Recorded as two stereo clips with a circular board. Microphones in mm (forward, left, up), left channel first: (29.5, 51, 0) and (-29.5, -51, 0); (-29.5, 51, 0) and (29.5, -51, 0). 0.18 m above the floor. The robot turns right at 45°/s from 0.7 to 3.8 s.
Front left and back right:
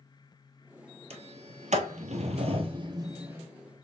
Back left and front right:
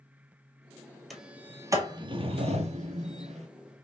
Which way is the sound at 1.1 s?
150° right.